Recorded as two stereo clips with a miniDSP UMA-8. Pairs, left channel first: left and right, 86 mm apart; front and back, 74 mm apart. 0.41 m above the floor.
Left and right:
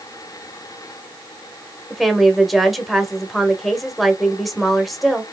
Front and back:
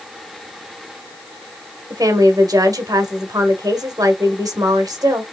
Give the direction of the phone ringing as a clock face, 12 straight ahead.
I don't hear a phone ringing.